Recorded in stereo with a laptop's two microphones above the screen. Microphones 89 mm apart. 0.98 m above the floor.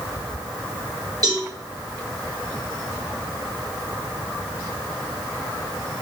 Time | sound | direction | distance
1.2 | a cowbell | 45° right (ahead or behind) | 1.2 m